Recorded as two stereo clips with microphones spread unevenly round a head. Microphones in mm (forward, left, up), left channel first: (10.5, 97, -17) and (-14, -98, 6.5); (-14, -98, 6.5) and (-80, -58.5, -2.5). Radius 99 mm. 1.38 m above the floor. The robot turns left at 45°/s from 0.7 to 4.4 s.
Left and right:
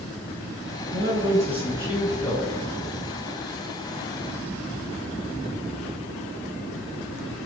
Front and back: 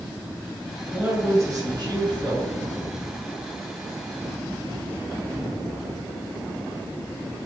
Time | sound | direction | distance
0.9 | a man speaking | 135° right | 1.6 m